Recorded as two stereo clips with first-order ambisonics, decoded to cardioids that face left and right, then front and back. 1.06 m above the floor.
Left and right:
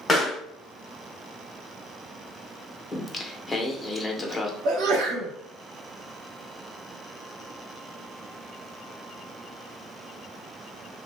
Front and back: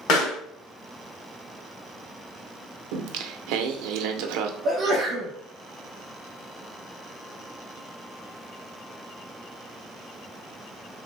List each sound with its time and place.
0.1 s a pop: 10° left, 1.3 m
2.9 s singing: 175° left, 0.5 m
4.7 s a sneeze: 115° right, 1.3 m